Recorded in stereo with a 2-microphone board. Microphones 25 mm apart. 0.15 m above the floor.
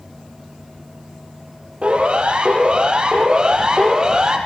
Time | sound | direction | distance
1.8 | a siren | 50° right (ahead or behind) | 6 m